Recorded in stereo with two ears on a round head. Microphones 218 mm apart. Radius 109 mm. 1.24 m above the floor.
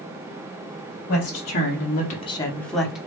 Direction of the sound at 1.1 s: 35° left (ahead or behind).